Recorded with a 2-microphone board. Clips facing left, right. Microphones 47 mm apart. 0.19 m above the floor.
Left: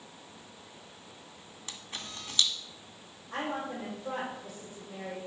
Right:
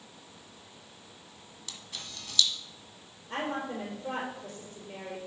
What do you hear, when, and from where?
1.7 s a camera shutter: 30° left (ahead or behind), 1.4 m
3.3 s a woman speaking: 60° right (ahead or behind), 4 m